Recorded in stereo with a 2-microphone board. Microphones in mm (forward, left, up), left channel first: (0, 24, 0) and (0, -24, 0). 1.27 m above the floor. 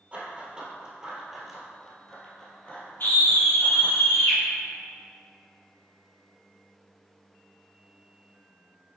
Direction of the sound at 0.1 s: 30° right (ahead or behind).